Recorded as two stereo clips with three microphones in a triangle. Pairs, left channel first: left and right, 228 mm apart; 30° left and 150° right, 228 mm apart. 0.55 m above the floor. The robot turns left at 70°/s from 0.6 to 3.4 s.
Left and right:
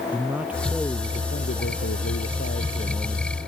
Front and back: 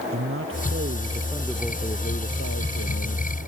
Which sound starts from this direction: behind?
A man speaking, at 0.1 s.